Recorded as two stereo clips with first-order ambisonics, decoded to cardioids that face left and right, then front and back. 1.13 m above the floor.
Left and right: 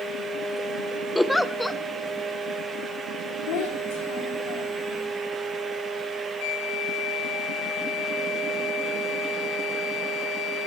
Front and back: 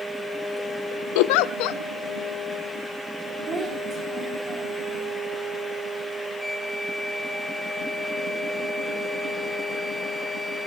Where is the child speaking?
110° left, 3.5 m.